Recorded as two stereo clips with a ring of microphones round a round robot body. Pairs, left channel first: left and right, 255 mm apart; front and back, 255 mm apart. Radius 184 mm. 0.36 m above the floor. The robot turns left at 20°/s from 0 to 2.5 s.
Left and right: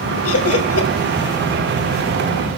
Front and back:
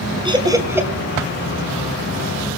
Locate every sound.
0.2 s laughter: 110° left, 2.5 m; by 0.9 s 100° left, 2.5 m